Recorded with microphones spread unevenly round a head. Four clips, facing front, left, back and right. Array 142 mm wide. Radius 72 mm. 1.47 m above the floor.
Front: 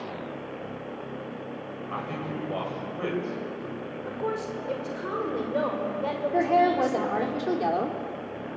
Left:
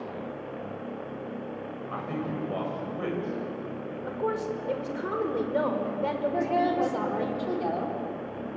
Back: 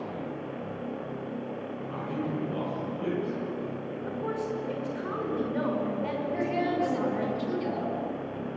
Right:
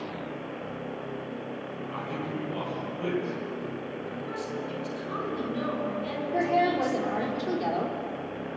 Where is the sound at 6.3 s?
5° right, 5 m.